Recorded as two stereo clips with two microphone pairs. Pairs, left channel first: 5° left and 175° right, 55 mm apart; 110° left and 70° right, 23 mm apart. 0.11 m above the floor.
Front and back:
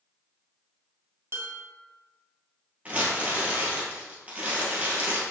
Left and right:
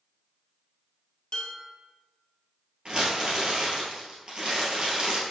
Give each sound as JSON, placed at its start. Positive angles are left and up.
{"t": 1.3, "sound": "dishes clattering", "azimuth_deg": 160, "distance_m": 1.6}
{"t": 2.9, "sound": "crumpling", "azimuth_deg": -115, "distance_m": 2.0}